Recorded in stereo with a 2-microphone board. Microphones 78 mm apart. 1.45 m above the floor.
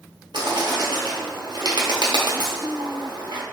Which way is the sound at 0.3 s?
70° right (ahead or behind).